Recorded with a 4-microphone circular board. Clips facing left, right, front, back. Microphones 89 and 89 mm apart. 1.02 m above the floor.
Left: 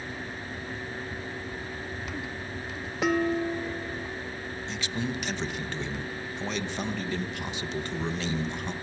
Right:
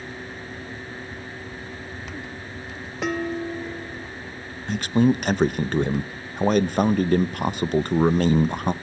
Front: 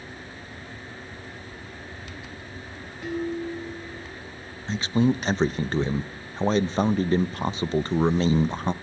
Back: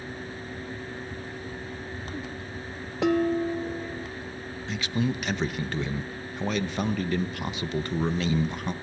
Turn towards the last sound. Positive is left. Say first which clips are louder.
# right 14 dB, front 6 dB
turn(degrees=-55)